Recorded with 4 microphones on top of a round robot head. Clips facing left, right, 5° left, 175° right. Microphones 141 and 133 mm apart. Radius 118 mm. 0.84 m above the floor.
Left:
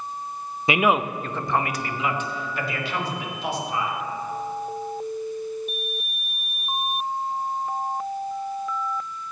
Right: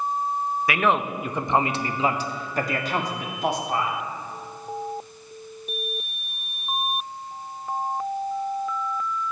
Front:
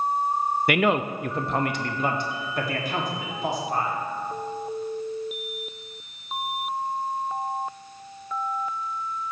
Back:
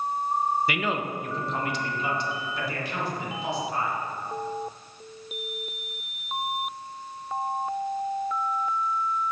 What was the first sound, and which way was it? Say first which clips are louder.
A man speaking: left 3 dB, front 6 dB; 25° left.